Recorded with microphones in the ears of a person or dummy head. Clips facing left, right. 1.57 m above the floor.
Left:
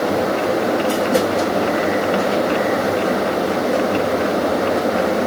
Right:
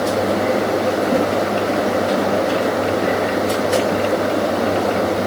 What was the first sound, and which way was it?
Only background noise.